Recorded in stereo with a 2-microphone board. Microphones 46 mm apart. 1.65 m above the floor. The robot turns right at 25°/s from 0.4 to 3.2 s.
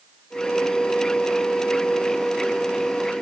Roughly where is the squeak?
I don't hear a squeak.